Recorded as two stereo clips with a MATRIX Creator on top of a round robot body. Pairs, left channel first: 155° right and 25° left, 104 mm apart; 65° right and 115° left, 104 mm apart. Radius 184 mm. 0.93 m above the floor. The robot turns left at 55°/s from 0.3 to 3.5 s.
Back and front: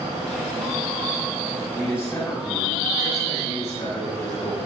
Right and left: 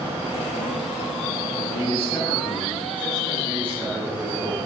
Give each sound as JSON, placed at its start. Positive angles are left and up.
{"t": 1.7, "sound": "a man speaking", "azimuth_deg": -75, "distance_m": 9.0}